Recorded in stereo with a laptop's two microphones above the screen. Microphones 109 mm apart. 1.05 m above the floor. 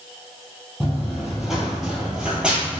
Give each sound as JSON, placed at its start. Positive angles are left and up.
{"t": 0.8, "sound": "running footsteps", "side_deg": 0, "distance_m": 1.4}